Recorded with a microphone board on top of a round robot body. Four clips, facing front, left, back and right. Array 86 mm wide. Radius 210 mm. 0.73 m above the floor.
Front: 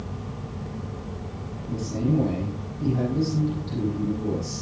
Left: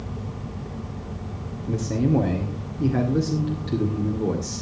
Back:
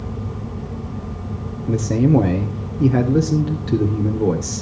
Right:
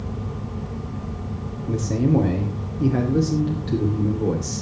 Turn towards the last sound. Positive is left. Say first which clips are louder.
# right 2 dB, back 9 dB
turn(degrees=-175)